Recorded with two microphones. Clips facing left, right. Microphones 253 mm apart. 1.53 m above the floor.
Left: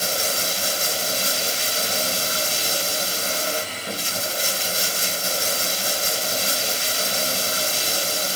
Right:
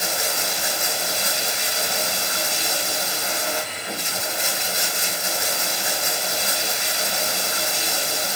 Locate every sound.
0.0 s running water: 40° left (ahead or behind), 2.5 m